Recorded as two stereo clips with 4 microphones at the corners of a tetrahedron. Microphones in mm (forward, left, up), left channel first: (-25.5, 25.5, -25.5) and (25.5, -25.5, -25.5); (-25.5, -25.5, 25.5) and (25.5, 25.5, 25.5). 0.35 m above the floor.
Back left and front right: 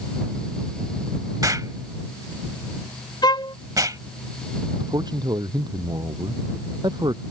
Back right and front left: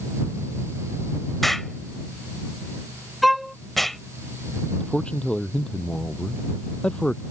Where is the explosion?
45° right.